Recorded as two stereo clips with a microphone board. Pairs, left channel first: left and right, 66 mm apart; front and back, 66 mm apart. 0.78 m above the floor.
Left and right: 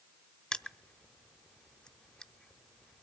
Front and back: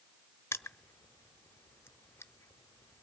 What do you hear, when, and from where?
0.5 s crushing: 20° left, 0.6 m